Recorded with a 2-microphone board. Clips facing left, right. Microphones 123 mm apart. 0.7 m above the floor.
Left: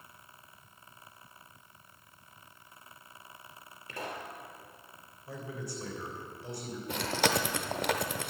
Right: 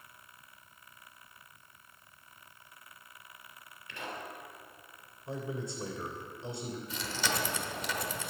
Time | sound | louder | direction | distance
3.9 | a pop | left 2 dB | 40° left (ahead or behind) | 2.5 m
5.3 | a man speaking | right 3 dB | 30° right (ahead or behind) | 2.5 m
6.9 | chewing | left 8 dB | 60° left (ahead or behind) | 1.1 m